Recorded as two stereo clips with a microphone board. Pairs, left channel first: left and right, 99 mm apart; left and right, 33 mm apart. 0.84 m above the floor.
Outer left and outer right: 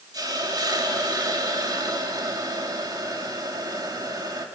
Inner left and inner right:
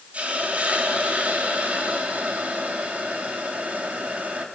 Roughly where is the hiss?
Right.